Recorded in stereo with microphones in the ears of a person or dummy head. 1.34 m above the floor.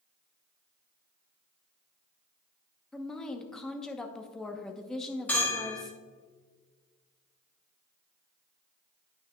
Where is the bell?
10° left (ahead or behind), 2 m.